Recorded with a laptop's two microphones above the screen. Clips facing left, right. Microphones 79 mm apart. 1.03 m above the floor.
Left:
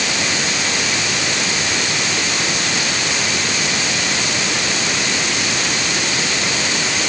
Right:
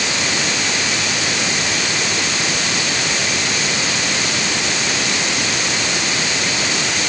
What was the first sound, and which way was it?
Only background noise.